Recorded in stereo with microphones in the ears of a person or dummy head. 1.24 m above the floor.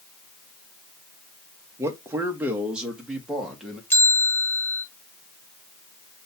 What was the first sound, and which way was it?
A man speaking, 15° right (ahead or behind).